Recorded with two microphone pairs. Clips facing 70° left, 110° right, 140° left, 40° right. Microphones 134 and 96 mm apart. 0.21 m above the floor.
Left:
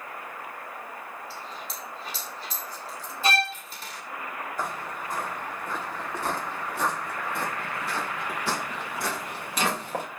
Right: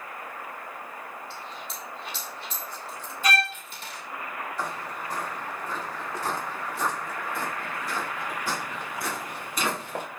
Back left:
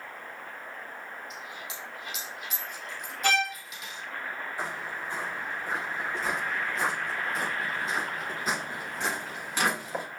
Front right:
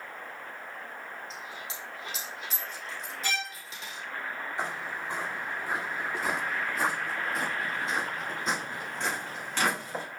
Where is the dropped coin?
15° left, 3 m.